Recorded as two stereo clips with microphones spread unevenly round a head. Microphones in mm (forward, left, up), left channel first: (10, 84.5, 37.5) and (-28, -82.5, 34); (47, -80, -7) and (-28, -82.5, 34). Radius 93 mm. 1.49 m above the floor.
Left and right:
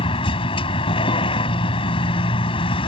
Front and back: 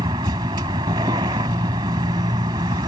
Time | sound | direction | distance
0.0 | a vehicle | 135° left | ?